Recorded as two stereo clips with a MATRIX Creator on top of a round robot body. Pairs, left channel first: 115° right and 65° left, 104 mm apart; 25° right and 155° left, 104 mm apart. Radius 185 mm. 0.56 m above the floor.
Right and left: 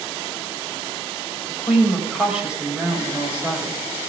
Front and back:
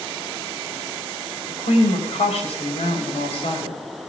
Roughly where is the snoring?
I don't hear snoring.